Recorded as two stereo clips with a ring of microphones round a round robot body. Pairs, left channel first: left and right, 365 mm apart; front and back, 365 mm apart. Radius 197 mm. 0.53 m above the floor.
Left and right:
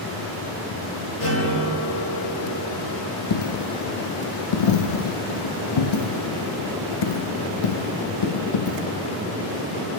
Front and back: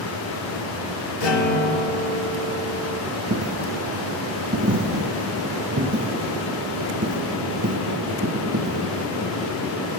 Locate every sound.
1.2 s a guitar: 25° left, 7 m
3.3 s a dropped coin: 110° left, 1.2 m